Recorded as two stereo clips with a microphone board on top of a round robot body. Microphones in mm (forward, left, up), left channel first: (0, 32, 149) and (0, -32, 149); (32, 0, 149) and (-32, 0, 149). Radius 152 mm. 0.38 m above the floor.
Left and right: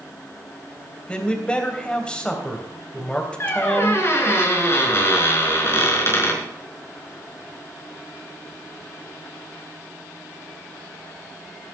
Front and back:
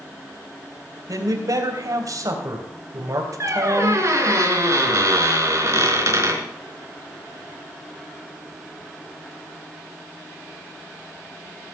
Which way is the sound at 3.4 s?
140° left.